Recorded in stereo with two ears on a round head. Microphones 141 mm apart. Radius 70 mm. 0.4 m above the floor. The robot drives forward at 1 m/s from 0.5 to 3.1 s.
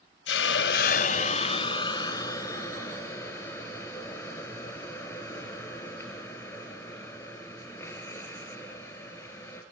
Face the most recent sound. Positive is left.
turn(degrees=15)  # may be behind; listen again after turning